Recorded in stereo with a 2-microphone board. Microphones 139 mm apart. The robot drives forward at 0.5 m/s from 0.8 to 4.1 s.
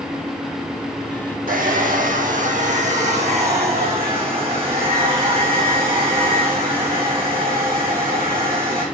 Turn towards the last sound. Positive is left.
turn(degrees=-40)  # may be behind; listen again after turning